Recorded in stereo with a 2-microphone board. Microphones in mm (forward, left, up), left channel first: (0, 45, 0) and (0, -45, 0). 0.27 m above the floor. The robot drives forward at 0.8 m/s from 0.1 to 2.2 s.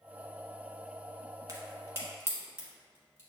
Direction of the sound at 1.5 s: 45° right (ahead or behind).